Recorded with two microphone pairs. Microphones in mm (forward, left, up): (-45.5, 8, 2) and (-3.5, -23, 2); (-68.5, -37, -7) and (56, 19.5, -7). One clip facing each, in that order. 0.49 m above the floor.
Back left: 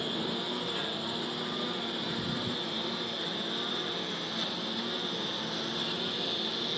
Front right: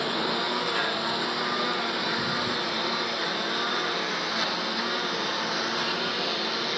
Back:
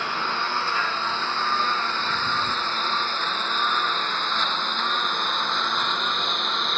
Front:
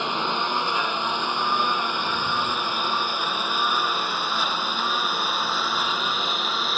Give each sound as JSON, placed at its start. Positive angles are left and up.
{"t": 0.0, "sound": "a lawn mower", "azimuth_deg": -45}